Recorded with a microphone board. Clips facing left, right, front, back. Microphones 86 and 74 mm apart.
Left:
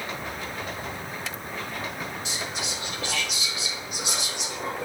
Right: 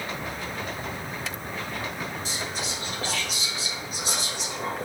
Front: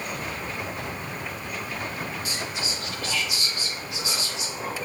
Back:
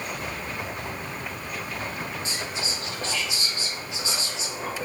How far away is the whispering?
About 1.1 m.